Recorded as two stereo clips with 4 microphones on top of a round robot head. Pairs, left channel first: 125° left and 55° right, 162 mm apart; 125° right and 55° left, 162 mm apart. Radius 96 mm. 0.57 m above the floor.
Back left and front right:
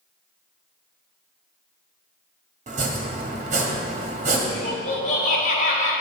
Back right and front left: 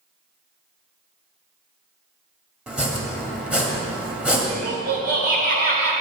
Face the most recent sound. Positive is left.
turn(degrees=80)